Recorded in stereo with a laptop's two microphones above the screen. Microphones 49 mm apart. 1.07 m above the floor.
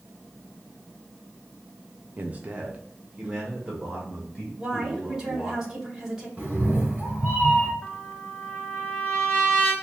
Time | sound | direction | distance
2.2 | a man speaking | 35° right (ahead or behind) | 0.6 m
4.6 | a woman speaking | 10° right (ahead or behind) | 2.0 m
6.4 | a cat meowing | 20° right (ahead or behind) | 2 m
7.8 | a trumpet | 20° left (ahead or behind) | 0.8 m